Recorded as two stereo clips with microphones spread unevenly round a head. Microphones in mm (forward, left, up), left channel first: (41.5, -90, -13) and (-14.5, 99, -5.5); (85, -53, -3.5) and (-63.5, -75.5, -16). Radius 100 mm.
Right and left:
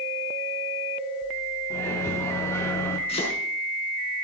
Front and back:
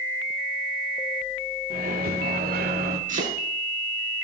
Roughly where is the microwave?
Behind right.